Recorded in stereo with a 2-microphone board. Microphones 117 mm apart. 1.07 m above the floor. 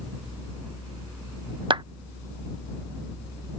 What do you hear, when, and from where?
1.7 s a clap: 40° right (ahead or behind)